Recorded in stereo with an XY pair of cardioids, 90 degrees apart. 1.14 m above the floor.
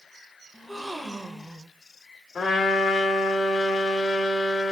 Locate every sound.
0.5 s a gasp: straight ahead, 0.7 m
2.4 s a trumpet: 55° left, 1.3 m